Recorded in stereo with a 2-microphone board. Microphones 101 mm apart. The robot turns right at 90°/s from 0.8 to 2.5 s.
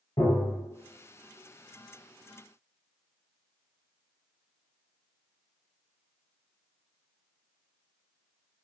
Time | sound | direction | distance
0.2 | tapping | 50° left (ahead or behind) | 1.6 m